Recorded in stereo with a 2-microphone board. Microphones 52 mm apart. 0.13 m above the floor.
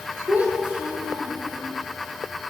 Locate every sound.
0.3 s a child speaking: 30° right (ahead or behind), 3 m